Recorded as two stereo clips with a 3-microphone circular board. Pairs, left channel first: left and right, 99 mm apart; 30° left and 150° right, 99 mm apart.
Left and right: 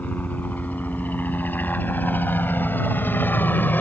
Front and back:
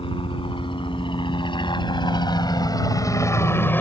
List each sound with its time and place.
0.0 s a helicopter: 20° left; by 3.8 s 60° left